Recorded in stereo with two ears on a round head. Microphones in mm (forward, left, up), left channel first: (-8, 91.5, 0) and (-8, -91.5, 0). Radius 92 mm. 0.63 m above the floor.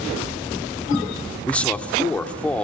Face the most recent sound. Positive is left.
turn(degrees=5)  # may be behind; listen again after turning